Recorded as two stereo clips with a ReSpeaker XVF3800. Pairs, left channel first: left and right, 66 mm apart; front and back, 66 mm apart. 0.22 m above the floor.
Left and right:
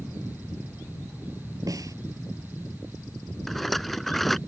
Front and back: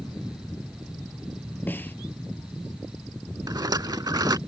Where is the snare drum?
60° right.